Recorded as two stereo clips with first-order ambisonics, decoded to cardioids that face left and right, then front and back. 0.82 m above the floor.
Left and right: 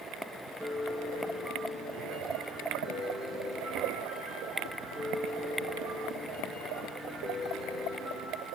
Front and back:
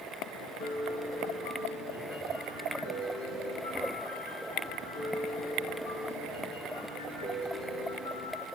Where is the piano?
20° right, 8.5 m.